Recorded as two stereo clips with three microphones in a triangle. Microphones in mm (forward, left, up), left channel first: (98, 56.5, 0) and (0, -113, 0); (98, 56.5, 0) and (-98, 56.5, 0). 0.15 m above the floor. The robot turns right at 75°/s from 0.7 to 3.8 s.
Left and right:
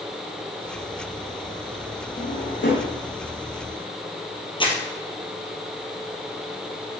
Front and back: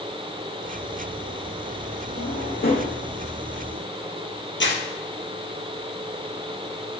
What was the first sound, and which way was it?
A drawer, straight ahead.